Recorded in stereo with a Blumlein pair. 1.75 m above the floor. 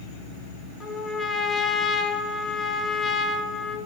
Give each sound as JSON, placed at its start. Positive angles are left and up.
{"t": 0.8, "sound": "a trumpet", "azimuth_deg": 20, "distance_m": 1.5}